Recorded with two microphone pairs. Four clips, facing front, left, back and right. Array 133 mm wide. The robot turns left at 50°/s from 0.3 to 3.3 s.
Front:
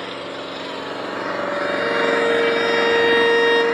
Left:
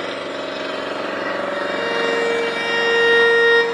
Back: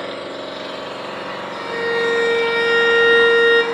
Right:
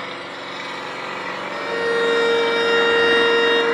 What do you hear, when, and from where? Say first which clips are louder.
0.0 s an engine running: left 6 dB, back 2 dB; 95° left, 3.5 m; by 3.7 s 55° right, 3.5 m
1.5 s a violin: even, back 1 dB; 120° right, 3 m; by 3.6 s 150° left, 3 m